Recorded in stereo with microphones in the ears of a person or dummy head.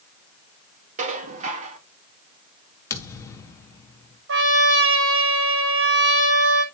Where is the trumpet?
60° right (ahead or behind), 7 m.